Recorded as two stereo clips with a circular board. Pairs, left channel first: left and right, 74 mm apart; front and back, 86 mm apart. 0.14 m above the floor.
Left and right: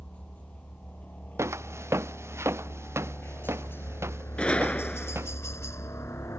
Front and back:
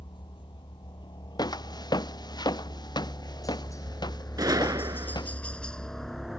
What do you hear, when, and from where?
0.0 s a helicopter: 15° left; by 6.4 s 95° left
1.4 s footsteps: 40° right; by 5.4 s 35° right
4.4 s a gunshot: 160° left